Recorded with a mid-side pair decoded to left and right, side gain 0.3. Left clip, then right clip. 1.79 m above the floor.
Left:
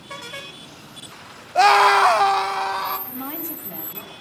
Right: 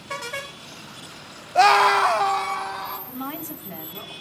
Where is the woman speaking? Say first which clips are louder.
Even; 20° right, 4.5 m.